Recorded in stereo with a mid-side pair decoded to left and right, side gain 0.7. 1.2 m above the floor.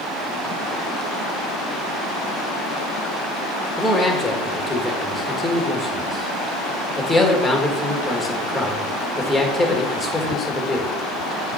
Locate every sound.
3.8 s a man speaking: straight ahead, 1.9 m